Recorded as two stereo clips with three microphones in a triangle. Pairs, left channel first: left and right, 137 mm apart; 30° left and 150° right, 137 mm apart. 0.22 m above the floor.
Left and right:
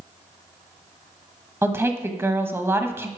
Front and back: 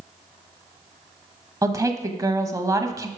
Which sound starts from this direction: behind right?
A woman speaking, at 1.6 s.